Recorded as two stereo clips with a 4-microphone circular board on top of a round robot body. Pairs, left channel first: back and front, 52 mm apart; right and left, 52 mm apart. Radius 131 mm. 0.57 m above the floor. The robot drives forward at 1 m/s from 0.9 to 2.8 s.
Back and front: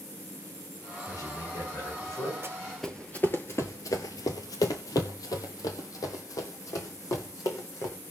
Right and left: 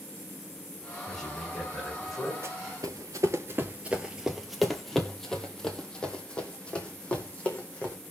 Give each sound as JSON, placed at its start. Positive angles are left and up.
{"t": 1.1, "sound": "a man speaking", "azimuth_deg": -165, "distance_m": 9.0}
{"t": 2.4, "sound": "running footsteps", "azimuth_deg": 50, "distance_m": 0.9}